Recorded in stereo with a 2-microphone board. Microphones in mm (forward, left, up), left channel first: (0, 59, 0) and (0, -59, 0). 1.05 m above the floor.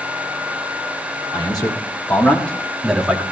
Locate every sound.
1.3 s a man speaking: 40° left (ahead or behind), 3 m; by 3.2 s 10° right (ahead or behind), 2 m